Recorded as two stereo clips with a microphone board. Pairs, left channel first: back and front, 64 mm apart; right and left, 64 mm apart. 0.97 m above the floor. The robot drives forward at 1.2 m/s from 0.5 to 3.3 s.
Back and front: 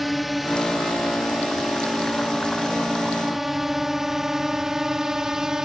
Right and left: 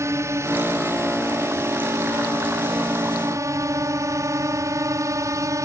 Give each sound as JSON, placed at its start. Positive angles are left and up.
{"t": 0.0, "sound": "a drone", "azimuth_deg": 85}